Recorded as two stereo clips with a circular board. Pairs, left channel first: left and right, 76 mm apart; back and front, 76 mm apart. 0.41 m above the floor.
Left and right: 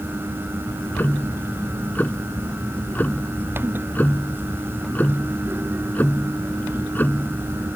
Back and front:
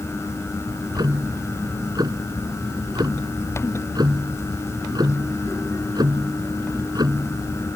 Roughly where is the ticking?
Ahead left.